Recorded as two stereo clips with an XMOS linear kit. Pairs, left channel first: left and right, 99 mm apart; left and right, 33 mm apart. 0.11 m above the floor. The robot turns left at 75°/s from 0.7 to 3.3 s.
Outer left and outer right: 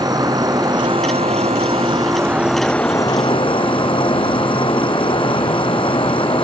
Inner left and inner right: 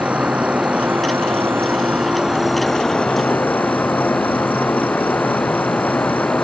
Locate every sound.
0.0 s an insect: 40° right; by 6.4 s 125° left